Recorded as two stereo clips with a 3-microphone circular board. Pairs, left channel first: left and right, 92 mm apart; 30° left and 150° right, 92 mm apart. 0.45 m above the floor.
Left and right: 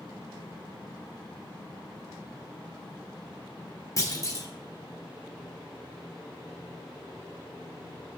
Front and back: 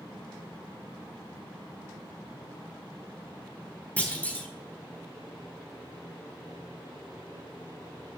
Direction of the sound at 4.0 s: 90° left.